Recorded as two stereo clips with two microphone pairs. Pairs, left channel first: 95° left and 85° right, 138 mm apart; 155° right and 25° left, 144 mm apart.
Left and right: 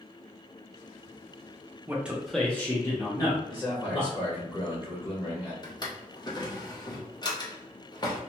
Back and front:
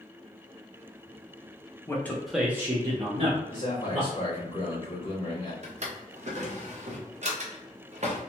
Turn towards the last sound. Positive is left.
turn(degrees=45)